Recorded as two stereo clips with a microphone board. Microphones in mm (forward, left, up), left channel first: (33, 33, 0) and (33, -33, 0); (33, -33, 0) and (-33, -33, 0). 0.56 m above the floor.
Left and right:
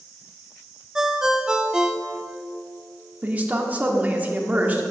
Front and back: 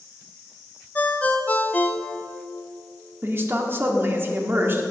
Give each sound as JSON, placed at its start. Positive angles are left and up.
{"t": 0.9, "sound": "a ringtone", "azimuth_deg": -25, "distance_m": 0.5}
{"t": 3.2, "sound": "a woman speaking", "azimuth_deg": -145, "distance_m": 0.9}